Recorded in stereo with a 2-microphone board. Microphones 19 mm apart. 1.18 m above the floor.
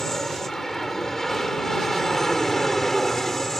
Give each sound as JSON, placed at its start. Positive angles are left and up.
{"t": 0.0, "sound": "an aircraft", "side_deg": 25}